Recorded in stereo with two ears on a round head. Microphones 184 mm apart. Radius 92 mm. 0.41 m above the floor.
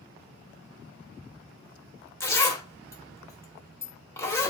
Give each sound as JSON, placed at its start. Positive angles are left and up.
{"t": 2.2, "sound": "a zipper", "side_deg": 15, "distance_m": 0.9}